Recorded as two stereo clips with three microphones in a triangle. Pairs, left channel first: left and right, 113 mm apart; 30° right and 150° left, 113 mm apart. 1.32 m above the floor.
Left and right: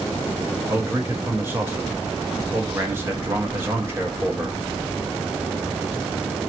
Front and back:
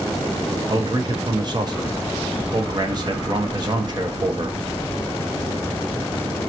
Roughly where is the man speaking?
Behind right.